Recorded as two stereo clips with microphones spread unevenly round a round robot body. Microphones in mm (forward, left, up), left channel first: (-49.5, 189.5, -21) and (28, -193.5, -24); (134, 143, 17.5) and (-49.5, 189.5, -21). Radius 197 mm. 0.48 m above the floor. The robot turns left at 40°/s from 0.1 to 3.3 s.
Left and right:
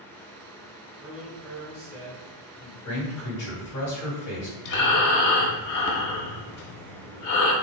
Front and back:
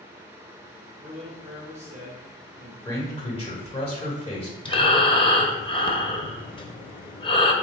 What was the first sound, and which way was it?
A man speaking, 155° right.